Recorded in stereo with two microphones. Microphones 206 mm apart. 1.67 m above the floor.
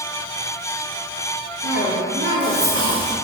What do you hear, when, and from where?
1.6 s a cough: 85° right, 4 m